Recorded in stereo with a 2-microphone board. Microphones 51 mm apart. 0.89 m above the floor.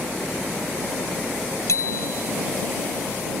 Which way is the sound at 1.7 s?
80° left.